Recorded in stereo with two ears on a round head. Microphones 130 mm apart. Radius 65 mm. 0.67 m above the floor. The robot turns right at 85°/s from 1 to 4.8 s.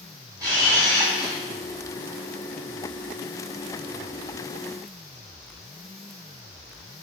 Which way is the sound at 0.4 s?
25° right.